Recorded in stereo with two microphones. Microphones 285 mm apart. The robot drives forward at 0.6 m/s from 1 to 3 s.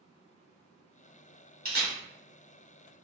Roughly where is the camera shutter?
Right.